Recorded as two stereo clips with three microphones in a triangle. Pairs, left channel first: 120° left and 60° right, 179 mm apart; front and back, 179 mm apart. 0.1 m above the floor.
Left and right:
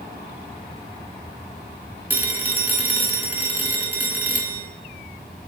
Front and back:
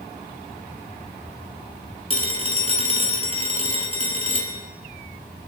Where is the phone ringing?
135° right, 1.1 m.